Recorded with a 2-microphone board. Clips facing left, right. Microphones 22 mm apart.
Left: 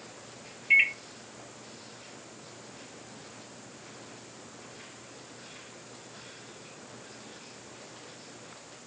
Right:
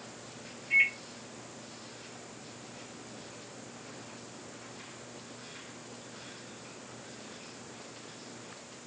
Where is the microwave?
55° left (ahead or behind), 0.5 m.